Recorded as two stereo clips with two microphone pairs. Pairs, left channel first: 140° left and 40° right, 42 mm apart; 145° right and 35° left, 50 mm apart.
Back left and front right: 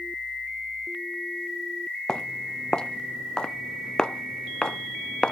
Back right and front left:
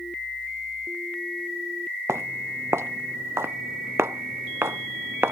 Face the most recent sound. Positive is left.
turn(degrees=75)